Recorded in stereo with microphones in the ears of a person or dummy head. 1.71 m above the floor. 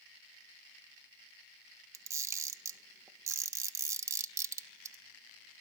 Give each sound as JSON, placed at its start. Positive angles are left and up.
{"t": 1.9, "sound": "a camera shutter", "side_deg": -20, "distance_m": 1.3}